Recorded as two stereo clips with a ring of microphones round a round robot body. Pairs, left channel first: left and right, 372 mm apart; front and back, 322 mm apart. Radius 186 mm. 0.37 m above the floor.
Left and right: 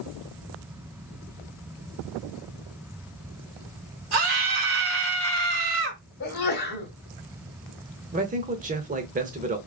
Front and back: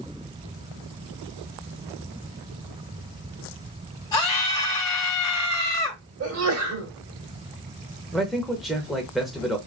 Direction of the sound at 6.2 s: 145° left.